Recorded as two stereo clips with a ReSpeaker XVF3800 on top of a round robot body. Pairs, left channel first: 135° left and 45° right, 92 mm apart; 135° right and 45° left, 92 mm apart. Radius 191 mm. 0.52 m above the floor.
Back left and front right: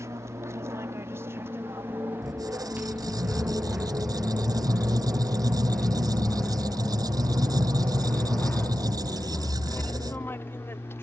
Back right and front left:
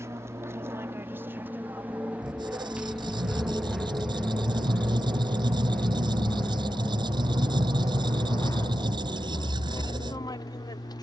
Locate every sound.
0.0 s an aircraft: straight ahead; by 11.1 s 165° right
2.2 s a squeak: 5° left